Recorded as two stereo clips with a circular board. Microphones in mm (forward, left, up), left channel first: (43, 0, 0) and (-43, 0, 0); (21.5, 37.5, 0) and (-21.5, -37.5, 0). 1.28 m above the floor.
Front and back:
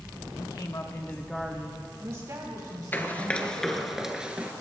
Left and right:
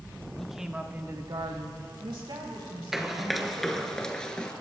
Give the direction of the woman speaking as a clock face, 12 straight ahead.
1 o'clock.